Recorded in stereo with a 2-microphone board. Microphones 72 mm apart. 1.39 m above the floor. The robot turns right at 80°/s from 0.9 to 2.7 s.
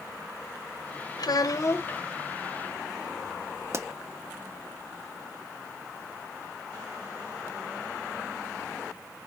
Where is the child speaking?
95° left, 0.7 m; by 2.0 s 160° left, 0.7 m.